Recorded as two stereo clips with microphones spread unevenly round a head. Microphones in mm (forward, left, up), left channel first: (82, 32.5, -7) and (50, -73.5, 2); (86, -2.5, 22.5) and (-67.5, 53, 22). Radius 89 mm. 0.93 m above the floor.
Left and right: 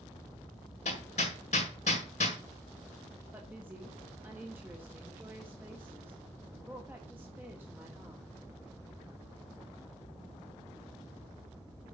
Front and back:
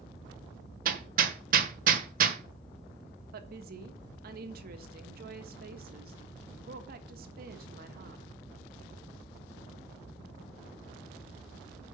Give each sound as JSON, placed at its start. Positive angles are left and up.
{"t": 0.8, "sound": "hammering", "azimuth_deg": 125, "distance_m": 1.6}
{"t": 3.3, "sound": "a woman speaking", "azimuth_deg": 175, "distance_m": 1.5}